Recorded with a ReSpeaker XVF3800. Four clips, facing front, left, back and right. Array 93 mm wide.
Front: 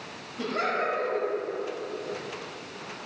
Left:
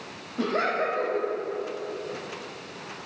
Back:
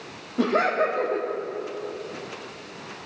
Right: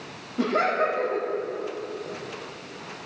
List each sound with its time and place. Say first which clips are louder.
0.4 s laughter: right 3 dB, back 6 dB; 175° right, 1.4 m